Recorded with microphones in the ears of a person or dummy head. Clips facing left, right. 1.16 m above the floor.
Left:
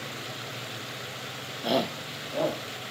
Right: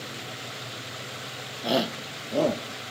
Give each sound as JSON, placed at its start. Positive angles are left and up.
{"t": 1.6, "sound": "a shout", "side_deg": 5, "distance_m": 0.6}